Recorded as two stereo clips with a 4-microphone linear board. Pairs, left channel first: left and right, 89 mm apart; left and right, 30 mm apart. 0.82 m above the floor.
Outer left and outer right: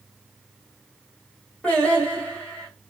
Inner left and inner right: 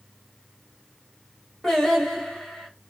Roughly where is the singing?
Centre.